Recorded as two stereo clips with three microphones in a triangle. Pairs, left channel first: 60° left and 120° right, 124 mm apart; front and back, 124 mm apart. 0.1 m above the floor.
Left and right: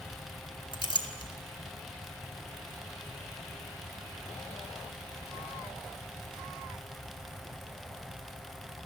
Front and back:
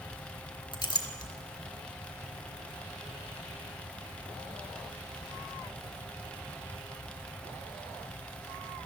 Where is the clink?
35° left, 1.3 m.